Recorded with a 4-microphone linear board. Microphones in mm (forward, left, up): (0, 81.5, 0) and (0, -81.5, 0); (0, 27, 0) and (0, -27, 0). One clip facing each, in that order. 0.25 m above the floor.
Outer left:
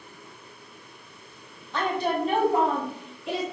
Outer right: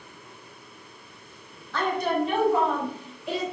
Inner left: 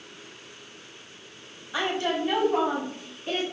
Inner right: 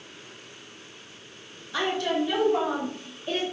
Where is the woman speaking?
20° left (ahead or behind), 1.1 m; by 3.4 s 65° left (ahead or behind), 2.5 m.